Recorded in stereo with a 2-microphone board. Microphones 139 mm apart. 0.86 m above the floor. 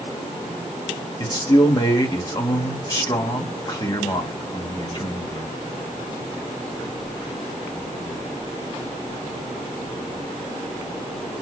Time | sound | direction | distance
1.2 | a man speaking | 30° left (ahead or behind) | 1.0 m